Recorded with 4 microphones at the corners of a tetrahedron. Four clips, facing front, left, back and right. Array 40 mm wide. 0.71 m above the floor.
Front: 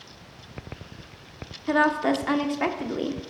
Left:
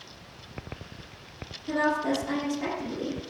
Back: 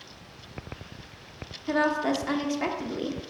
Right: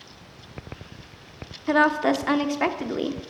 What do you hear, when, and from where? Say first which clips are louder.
1.7 s a woman speaking: right 6 dB, front 3 dB; 65° right, 1.2 m